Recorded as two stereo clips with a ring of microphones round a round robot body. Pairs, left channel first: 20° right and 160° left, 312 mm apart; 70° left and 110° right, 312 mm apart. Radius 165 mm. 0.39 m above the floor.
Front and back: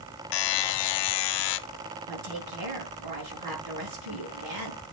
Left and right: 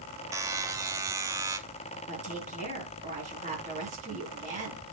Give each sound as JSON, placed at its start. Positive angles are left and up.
{"t": 0.3, "sound": "a buzzer", "azimuth_deg": -30, "distance_m": 0.6}
{"t": 2.1, "sound": "a woman speaking", "azimuth_deg": 180, "distance_m": 5.5}